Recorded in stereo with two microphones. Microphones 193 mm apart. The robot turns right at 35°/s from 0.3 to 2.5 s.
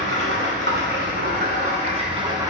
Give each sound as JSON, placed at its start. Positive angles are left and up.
{"t": 0.0, "sound": "running water", "azimuth_deg": -95, "distance_m": 1.4}